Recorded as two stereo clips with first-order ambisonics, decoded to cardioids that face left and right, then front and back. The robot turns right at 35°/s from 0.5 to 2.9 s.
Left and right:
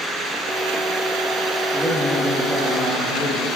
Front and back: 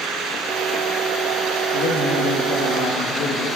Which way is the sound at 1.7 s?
5° right.